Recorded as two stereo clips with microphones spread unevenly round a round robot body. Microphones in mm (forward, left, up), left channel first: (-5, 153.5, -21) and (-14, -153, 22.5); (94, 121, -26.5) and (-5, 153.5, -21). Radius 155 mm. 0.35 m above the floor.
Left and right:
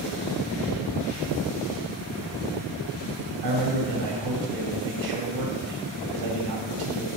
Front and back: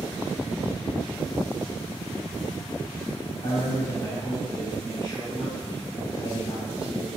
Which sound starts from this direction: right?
A man speaking, at 3.4 s.